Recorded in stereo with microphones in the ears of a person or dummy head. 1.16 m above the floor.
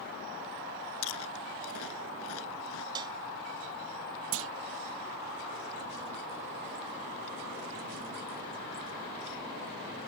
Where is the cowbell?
20° right (ahead or behind).